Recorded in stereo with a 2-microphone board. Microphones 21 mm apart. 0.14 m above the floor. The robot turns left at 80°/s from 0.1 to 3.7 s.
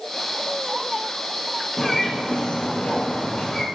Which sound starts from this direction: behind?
A bird, at 1.8 s.